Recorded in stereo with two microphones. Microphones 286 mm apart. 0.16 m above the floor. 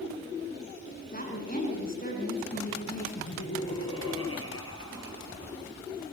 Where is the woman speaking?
35° left (ahead or behind), 8.5 m.